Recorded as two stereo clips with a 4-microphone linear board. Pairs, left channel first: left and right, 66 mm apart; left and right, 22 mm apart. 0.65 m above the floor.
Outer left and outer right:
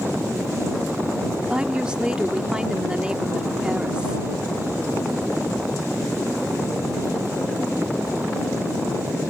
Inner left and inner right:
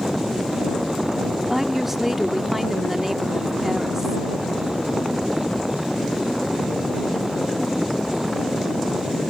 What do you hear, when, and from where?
1.5 s a woman speaking: 15° right (ahead or behind)